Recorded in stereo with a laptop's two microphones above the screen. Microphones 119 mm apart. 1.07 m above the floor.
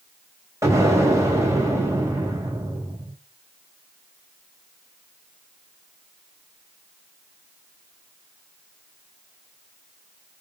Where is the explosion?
25° right (ahead or behind), 3.5 m.